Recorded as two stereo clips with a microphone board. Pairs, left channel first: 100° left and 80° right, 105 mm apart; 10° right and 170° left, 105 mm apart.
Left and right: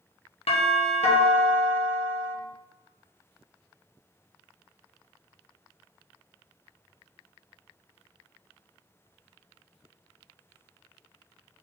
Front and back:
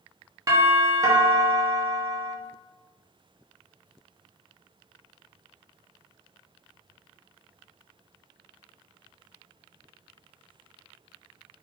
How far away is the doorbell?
About 0.8 m.